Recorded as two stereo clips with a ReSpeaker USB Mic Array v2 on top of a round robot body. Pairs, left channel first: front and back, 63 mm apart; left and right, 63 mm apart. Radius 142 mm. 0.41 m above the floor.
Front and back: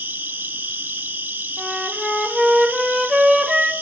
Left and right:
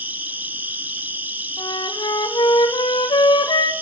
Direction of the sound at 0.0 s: 140° right.